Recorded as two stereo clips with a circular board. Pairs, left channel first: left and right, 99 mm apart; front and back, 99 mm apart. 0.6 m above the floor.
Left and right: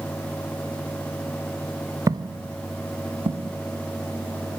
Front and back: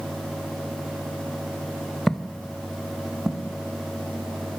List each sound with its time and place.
2.1 s footsteps: 85° right, 0.6 m; by 3.5 s 95° right, 2.5 m